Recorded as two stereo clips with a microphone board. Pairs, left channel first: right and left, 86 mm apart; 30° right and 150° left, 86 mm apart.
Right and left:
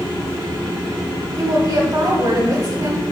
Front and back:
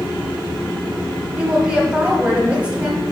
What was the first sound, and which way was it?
A woman speaking, 80° left.